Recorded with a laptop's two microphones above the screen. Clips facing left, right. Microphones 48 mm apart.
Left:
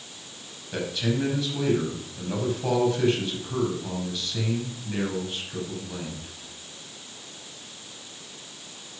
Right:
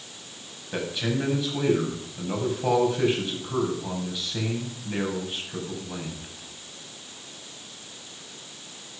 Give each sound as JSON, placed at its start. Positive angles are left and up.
{"t": 0.7, "sound": "a man speaking", "side_deg": -10, "distance_m": 5.5}